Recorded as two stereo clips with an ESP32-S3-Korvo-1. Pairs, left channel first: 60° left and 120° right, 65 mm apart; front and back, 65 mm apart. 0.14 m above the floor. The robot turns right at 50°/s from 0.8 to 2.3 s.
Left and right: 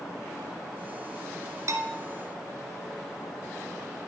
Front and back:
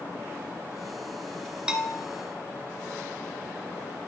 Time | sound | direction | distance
1.7 | a bell | 105° right | 1.1 m